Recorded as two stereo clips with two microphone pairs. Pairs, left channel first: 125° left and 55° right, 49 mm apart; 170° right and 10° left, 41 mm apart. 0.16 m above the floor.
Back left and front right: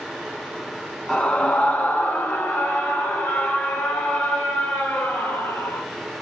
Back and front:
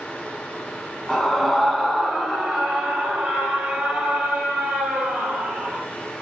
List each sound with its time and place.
1.1 s a scream: 125° left, 1.4 m; by 5.8 s 90° left, 3.5 m